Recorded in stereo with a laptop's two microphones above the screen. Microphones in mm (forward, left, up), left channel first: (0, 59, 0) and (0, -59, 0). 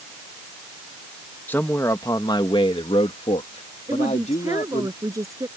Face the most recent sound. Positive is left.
turn(degrees=-25)  # may be behind; listen again after turning